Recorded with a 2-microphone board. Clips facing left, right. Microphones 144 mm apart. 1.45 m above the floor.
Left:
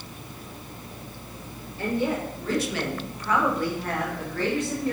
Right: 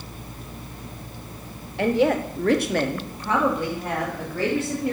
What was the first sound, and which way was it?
A woman speaking, 65° right (ahead or behind).